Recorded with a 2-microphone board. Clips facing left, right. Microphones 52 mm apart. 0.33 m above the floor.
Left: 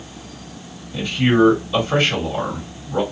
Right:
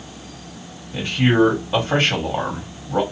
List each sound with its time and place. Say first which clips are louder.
0.9 s a man speaking: even; 40° right (ahead or behind), 2 m